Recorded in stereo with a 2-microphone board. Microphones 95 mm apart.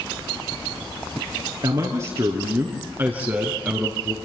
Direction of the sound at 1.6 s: 45° right (ahead or behind).